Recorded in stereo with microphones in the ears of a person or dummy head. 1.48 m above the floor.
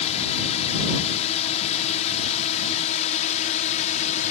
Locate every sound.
0.0 s a drone: 40° left (ahead or behind)